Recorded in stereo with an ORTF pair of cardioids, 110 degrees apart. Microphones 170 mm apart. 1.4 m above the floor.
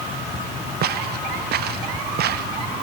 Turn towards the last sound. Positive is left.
turn(degrees=-70)